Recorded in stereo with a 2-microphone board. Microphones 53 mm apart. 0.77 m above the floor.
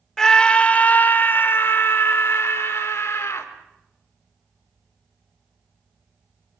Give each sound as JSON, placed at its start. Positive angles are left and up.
{"t": 0.2, "sound": "a scream", "side_deg": 10, "distance_m": 0.9}